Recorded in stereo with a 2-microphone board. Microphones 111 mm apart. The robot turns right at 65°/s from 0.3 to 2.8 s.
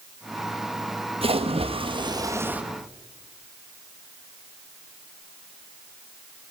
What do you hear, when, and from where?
1.2 s a splash: 105° right, 1.2 m; by 2.6 s 10° right, 1.2 m